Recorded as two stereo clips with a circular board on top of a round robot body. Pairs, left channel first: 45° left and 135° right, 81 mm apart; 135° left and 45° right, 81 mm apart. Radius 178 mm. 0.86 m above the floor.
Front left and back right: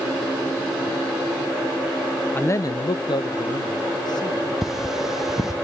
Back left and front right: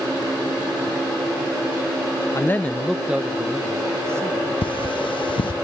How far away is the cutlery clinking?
About 0.7 m.